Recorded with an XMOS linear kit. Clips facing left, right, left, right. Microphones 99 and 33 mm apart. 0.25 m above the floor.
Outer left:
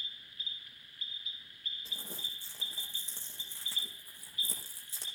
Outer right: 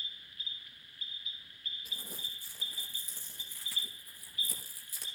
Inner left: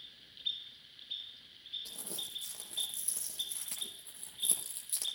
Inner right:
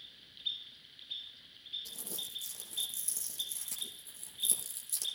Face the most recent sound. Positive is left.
turn(degrees=30)  # may be behind; listen again after turning